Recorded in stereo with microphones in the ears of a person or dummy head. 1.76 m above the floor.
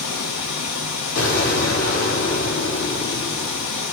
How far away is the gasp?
No gasp in this recording.